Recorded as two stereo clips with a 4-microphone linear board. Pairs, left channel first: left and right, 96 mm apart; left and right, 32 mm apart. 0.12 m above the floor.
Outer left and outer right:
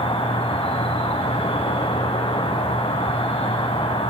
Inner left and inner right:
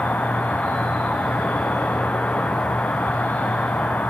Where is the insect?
70° left (ahead or behind), 1.6 m.